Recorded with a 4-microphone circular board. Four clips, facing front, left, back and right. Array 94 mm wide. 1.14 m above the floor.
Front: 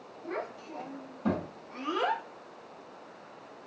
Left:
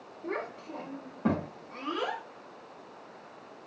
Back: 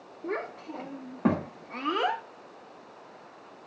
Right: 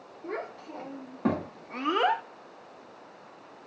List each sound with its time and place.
0.2 s a child speaking: straight behind, 1.6 m; by 2.2 s 80° right, 0.6 m